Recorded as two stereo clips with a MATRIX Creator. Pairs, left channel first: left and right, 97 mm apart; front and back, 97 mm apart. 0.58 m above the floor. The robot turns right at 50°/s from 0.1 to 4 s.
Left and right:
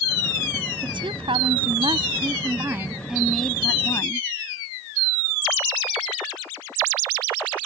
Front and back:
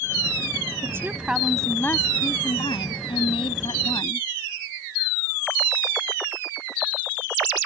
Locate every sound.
0.8 s a woman speaking: 125° right; by 4.3 s 35° left